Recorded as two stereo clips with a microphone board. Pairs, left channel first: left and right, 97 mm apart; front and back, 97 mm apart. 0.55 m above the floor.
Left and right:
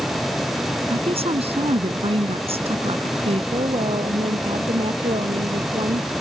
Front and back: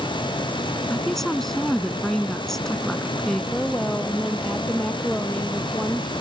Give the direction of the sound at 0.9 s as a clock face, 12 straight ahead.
3 o'clock.